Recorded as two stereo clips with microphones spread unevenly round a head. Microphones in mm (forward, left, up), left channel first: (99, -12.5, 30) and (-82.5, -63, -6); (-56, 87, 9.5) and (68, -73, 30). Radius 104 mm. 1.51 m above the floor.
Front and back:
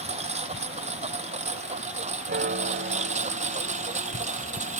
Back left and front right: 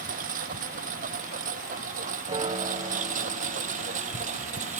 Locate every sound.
0.0 s a lawn mower: 105° right; by 4.8 s 110° right
2.3 s a piano: 120° right